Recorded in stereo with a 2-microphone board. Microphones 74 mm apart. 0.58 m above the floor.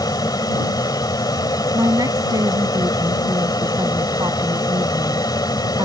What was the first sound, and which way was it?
An aircraft, 65° left (ahead or behind).